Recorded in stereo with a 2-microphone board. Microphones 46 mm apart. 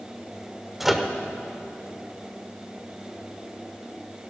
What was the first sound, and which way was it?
A microwave, 5° right (ahead or behind).